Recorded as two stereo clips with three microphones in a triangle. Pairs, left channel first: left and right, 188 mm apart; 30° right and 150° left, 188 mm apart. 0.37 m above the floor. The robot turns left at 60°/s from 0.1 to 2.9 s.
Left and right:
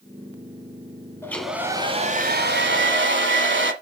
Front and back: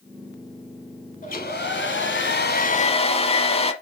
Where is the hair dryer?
15° left, 1.2 m; by 3.7 s 90° right, 1.2 m.